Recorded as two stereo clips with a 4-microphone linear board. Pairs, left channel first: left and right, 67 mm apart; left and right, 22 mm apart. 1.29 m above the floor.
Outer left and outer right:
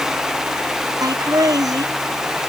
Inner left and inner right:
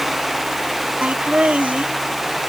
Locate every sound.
1.0 s laughter: 60° right (ahead or behind)